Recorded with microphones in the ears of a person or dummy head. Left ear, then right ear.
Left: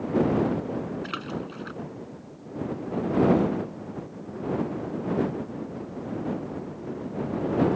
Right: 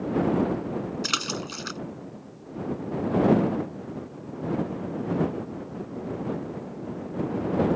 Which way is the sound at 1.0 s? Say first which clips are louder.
Right 6 dB; 85° right.